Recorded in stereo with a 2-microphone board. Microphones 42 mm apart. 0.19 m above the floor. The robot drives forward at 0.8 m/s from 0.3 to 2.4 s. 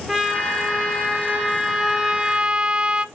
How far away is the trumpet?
About 2 m.